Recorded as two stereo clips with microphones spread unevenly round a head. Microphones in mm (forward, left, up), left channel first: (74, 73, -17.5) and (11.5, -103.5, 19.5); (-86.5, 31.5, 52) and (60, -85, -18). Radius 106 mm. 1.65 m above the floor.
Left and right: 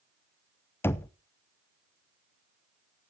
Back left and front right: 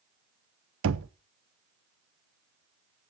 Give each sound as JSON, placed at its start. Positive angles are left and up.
{"t": 0.8, "sound": "knocking", "azimuth_deg": -15, "distance_m": 0.6}